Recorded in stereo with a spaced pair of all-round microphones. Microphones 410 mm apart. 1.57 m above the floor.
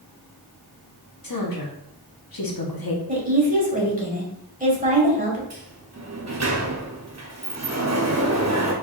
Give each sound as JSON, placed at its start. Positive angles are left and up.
{"t": 1.2, "sound": "a woman speaking", "side_deg": 55, "distance_m": 0.9}
{"t": 3.1, "sound": "a woman speaking", "side_deg": -20, "distance_m": 1.4}
{"t": 5.5, "sound": "a sliding door", "side_deg": -40, "distance_m": 0.6}